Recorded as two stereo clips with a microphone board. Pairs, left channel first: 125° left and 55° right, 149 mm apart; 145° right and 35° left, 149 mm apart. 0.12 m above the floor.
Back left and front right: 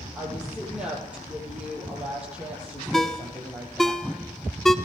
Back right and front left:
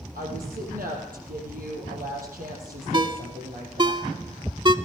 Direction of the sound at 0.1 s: 25° left.